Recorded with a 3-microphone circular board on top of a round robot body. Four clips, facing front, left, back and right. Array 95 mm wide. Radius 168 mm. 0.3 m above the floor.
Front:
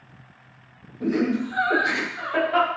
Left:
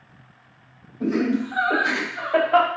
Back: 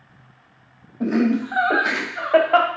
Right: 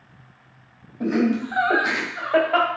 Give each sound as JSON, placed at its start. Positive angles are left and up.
{"t": 1.0, "sound": "laughter", "azimuth_deg": -155, "distance_m": 2.5}